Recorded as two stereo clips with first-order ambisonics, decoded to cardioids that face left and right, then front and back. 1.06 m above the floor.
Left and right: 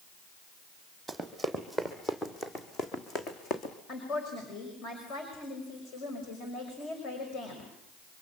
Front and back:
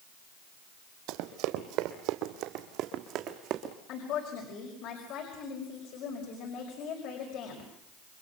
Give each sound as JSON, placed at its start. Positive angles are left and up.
{"t": 1.1, "sound": "running footsteps", "azimuth_deg": -175, "distance_m": 2.0}
{"t": 3.9, "sound": "a woman speaking", "azimuth_deg": 40, "distance_m": 5.5}